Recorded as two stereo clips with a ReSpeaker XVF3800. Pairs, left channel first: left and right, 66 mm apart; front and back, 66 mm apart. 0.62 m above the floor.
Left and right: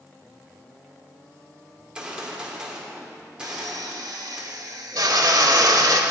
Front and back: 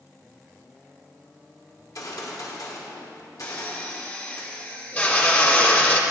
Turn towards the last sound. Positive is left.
turn(degrees=-65)